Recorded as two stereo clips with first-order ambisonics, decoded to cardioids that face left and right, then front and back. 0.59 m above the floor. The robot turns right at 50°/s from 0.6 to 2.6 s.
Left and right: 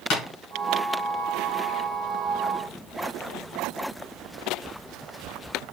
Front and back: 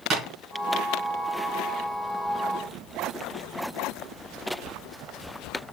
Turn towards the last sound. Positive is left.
turn(degrees=-135)